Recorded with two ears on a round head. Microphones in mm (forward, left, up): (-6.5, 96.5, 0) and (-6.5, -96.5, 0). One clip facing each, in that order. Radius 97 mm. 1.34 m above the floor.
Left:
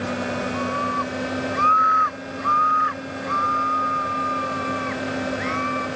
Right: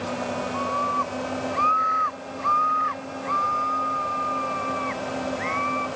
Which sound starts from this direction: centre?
A scream, at 0.5 s.